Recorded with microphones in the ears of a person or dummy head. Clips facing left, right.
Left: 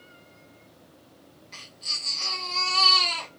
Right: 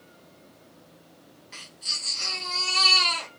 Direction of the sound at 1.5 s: 10° right (ahead or behind).